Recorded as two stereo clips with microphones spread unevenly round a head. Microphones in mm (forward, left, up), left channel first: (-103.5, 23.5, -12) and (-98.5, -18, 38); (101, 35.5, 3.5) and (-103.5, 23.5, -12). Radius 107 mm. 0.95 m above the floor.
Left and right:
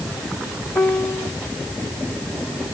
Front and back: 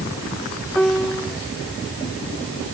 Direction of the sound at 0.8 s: 90° left.